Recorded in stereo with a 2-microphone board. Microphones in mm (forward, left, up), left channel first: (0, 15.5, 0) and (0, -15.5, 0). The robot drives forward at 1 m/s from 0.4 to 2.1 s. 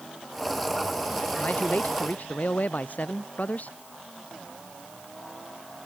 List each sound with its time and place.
1.4 s a man speaking: 50° left (ahead or behind); by 3.8 s 55° left (ahead or behind)